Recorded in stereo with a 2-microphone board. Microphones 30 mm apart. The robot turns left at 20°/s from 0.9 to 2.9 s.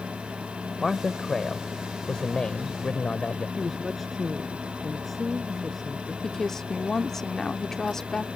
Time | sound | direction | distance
0.8 | a man speaking | 175° left | ?
3.6 | a woman speaking | 5° left (ahead or behind) | ?
6.2 | a woman speaking | 15° left (ahead or behind) | ?